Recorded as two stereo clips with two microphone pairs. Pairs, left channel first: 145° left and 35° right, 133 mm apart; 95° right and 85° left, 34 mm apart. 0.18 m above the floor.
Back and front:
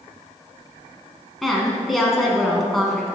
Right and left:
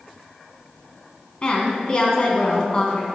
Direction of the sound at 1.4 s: 125° right.